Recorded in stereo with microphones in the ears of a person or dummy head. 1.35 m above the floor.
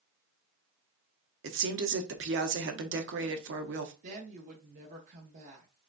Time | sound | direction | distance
1.4 | a woman speaking | 60° right (ahead or behind) | 0.7 m
4.0 | a woman speaking | 50° right (ahead or behind) | 0.9 m